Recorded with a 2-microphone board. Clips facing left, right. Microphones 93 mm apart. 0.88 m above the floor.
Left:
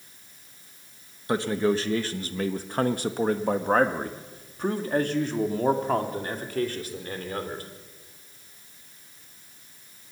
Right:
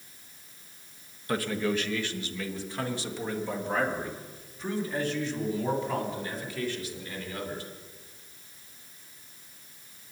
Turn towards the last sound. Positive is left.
turn(degrees=50)  # may be behind; listen again after turning